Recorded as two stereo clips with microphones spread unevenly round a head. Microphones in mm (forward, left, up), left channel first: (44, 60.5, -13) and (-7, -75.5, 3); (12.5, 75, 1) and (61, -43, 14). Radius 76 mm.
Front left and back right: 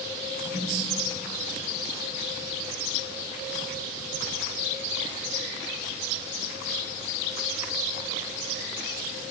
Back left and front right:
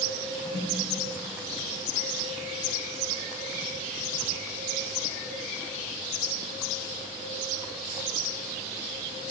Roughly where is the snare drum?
Behind right.